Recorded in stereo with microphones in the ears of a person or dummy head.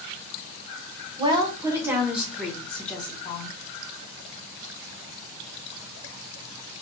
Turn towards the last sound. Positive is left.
turn(degrees=20)  # may be behind; listen again after turning